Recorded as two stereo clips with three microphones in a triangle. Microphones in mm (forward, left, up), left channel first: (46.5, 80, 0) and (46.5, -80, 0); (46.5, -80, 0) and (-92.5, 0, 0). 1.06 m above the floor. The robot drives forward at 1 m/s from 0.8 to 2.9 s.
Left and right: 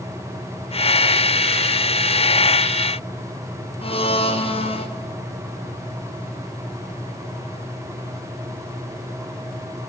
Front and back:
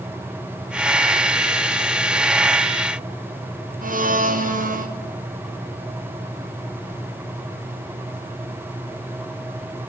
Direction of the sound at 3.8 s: 135° left.